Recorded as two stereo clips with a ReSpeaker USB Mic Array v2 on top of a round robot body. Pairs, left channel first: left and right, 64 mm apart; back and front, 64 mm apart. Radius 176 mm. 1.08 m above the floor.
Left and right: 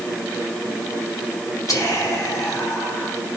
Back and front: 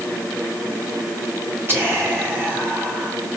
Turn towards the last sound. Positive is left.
turn(degrees=55)